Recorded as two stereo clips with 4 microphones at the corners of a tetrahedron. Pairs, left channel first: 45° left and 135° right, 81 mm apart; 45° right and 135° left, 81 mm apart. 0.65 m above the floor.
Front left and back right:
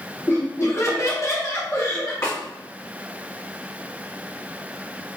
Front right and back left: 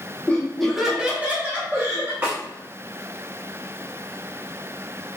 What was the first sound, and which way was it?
Laughter, 15° left.